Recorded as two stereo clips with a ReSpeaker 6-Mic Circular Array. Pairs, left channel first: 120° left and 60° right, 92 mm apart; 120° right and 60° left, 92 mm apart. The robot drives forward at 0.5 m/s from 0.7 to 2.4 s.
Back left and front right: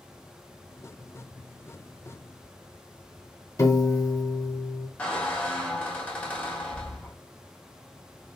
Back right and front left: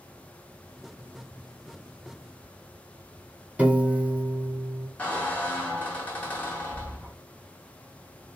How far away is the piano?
About 0.7 m.